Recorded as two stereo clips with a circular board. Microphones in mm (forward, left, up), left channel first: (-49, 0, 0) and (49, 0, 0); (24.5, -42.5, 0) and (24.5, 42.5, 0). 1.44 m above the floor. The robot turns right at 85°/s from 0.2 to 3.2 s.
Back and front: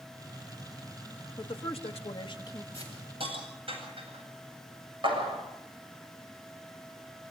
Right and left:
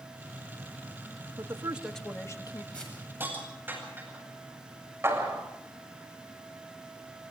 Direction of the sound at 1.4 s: 135° left.